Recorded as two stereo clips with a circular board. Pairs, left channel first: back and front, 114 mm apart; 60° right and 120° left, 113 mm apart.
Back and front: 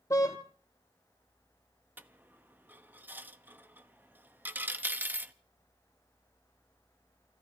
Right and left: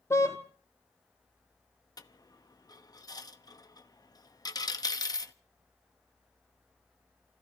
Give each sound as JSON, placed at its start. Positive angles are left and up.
{"t": 0.1, "sound": "a car horn", "azimuth_deg": -125, "distance_m": 2.5}
{"t": 2.0, "sound": "a dropped coin", "azimuth_deg": -60, "distance_m": 0.8}